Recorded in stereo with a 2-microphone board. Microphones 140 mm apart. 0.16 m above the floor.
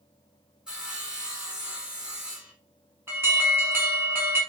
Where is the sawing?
5° right (ahead or behind), 0.7 m.